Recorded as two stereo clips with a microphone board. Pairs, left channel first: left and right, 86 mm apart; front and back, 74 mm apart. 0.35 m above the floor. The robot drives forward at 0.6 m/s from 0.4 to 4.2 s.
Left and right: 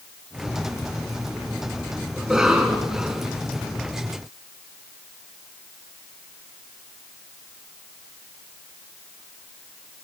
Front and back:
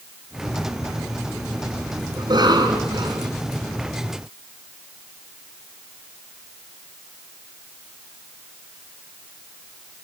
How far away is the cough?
About 4.5 m.